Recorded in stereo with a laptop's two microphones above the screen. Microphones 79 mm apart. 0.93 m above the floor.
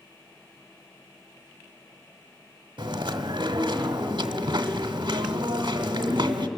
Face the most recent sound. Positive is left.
turn(degrees=-75)  # may be behind; listen again after turning